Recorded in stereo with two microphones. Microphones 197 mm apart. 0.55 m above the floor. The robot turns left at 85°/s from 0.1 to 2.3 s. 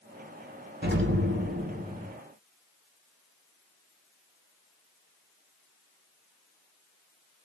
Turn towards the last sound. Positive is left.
turn(degrees=175)